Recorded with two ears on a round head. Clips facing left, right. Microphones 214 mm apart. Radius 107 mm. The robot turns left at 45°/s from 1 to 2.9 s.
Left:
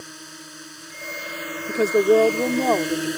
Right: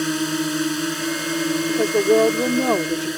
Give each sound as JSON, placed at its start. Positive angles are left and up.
{"t": 0.0, "sound": "a drone", "azimuth_deg": -95}
{"t": 1.7, "sound": "a woman speaking", "azimuth_deg": 25}